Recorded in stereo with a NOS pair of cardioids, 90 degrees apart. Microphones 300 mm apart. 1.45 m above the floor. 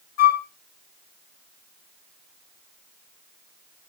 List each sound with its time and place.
0.2 s a flute: 55° left, 1.2 m